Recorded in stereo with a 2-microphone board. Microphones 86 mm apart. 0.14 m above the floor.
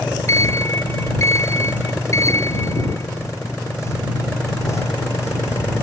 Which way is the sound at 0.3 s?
35° left (ahead or behind).